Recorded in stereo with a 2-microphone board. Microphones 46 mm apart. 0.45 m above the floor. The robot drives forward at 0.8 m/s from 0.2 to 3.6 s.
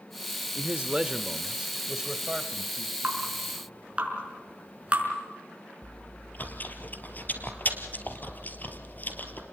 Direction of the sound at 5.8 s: 40° left (ahead or behind).